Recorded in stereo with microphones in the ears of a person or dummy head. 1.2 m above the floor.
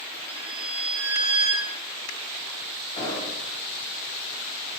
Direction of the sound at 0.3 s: 40° right (ahead or behind).